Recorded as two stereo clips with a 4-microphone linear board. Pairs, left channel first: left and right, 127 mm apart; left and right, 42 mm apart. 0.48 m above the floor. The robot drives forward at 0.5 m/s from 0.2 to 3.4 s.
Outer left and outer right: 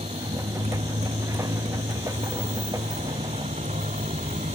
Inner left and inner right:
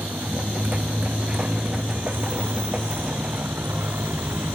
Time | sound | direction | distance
0.0 | a motorcycle | 65° right (ahead or behind) | ?